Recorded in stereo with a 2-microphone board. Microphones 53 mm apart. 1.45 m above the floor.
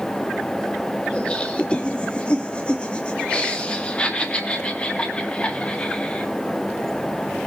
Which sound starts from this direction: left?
Laughter, at 1.1 s.